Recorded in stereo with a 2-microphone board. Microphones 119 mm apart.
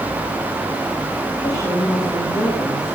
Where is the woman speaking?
30° left (ahead or behind), 7.5 m.